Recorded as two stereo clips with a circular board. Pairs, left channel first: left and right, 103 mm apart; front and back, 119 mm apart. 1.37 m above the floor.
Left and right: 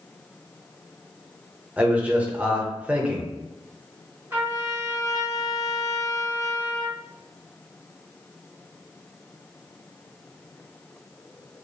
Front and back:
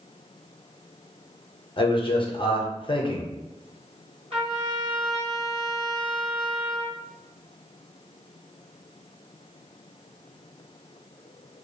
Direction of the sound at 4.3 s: 155° right.